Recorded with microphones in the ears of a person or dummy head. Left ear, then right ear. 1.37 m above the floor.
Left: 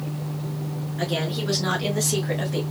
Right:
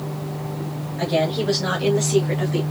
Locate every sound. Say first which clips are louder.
1.0 s a woman speaking: right 6 dB; 10° left (ahead or behind), 3.5 m